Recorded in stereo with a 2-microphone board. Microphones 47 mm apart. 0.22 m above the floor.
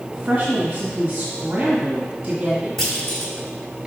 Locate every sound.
0.1 s a woman speaking: 25° right (ahead or behind), 1.7 m
2.8 s a clunk: 5° left (ahead or behind), 1.4 m